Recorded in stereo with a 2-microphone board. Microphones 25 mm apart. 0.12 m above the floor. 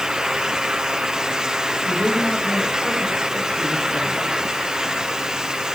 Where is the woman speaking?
60° left (ahead or behind), 10 m.